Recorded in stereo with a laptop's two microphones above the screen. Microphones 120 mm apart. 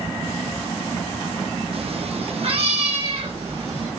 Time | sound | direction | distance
1.7 | a cat meowing | 55° right (ahead or behind) | 0.6 m